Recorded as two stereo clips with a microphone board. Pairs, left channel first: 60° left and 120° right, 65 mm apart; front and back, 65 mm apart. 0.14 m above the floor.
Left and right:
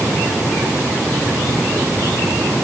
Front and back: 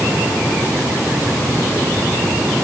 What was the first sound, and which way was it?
Only background noise.